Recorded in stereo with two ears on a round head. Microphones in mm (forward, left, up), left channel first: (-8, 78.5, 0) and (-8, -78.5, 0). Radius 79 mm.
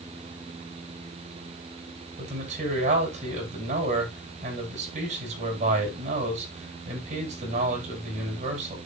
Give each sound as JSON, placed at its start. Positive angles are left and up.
{"t": 2.2, "sound": "a man speaking", "side_deg": -45, "distance_m": 9.0}